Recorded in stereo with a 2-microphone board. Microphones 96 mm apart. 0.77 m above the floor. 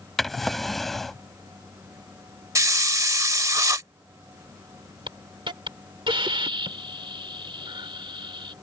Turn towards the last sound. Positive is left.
turn(degrees=-60)  # may be behind; listen again after turning